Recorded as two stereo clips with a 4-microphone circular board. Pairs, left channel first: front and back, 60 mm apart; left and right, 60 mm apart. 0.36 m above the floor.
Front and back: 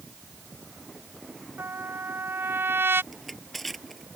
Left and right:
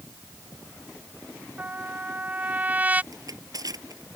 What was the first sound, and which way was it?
A trumpet, 150° right.